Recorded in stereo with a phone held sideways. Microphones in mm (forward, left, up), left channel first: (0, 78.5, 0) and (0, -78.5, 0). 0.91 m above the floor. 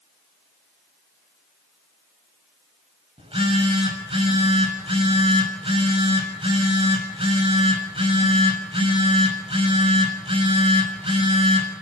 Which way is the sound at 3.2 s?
35° right (ahead or behind).